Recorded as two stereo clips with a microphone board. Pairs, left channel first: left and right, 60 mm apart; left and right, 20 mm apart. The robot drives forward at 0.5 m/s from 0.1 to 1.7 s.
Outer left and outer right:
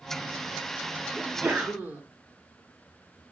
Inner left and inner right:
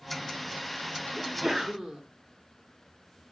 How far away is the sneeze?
About 0.9 m.